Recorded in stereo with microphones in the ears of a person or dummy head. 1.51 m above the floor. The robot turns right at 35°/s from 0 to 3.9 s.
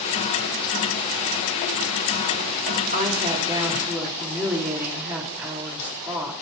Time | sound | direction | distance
2.9 | a woman speaking | 45° right | 4.5 m